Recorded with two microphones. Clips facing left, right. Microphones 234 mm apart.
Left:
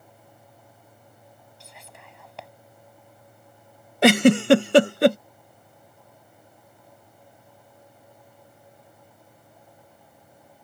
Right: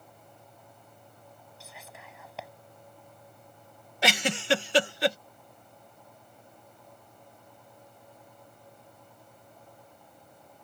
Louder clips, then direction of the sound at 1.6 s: Even; centre (ahead or behind).